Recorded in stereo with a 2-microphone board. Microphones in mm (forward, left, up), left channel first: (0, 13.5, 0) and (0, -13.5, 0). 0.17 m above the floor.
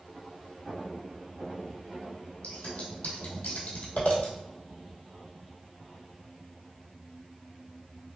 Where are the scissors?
70° left (ahead or behind), 1.4 m.